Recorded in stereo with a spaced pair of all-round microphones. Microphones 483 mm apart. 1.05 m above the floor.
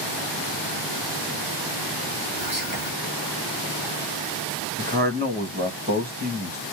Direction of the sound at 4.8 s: 20° right (ahead or behind).